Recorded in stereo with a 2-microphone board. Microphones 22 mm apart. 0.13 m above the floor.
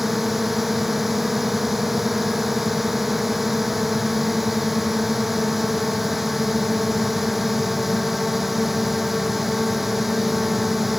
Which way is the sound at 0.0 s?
10° right (ahead or behind).